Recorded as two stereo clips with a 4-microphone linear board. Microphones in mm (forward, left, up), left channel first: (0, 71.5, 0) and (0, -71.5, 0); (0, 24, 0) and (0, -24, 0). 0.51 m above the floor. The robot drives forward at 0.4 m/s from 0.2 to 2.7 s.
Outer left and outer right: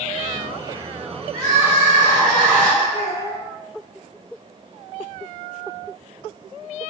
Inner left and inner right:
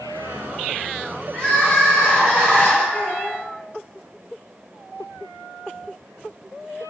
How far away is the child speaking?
About 0.6 m.